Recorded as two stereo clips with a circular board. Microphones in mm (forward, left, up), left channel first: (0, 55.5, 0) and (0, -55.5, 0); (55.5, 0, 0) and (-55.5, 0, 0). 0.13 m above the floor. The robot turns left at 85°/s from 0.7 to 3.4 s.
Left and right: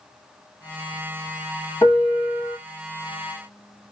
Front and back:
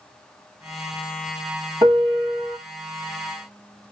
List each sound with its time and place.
1.8 s a piano: 150° left, 1.6 m; by 2.6 s 85° left, 1.6 m